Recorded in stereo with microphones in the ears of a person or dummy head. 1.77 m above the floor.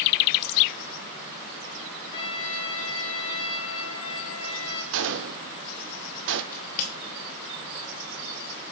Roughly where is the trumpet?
Left.